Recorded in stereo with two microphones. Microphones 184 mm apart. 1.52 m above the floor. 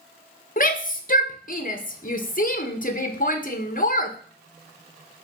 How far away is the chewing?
I don't hear chewing.